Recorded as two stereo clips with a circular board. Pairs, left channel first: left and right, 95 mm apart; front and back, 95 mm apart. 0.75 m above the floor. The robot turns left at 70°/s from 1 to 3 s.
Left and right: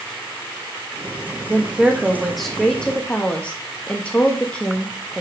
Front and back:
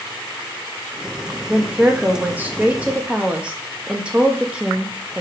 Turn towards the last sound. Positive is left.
turn(degrees=135)